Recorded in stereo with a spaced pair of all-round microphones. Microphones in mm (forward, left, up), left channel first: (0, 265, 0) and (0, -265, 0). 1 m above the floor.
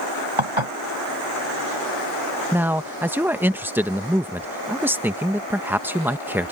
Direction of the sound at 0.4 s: 65° right (ahead or behind).